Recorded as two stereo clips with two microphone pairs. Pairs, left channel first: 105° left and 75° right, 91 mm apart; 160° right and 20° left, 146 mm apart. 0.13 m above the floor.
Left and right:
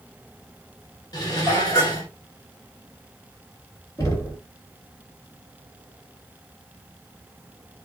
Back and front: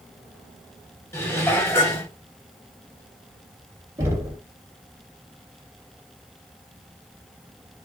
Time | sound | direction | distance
1.1 | dishes clattering | 130° left | 1.3 m
4.0 | knocking | 75° left | 1.3 m